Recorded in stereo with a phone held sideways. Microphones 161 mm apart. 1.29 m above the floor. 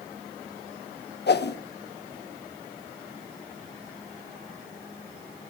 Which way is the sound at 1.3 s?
85° left.